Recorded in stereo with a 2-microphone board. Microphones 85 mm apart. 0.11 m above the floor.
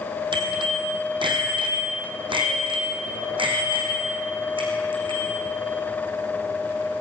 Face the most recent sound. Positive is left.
turn(degrees=-75)  # may be behind; listen again after turning